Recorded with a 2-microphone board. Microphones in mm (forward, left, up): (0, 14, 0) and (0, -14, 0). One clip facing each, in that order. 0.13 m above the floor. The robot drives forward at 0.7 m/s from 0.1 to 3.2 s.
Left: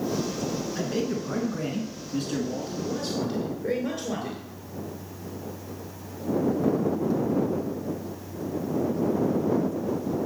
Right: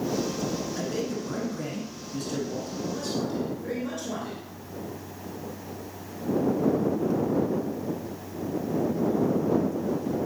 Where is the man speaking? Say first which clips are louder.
Left 2 dB; 20° left (ahead or behind), 1.4 m; by 4.4 s 15° left (ahead or behind), 1.7 m.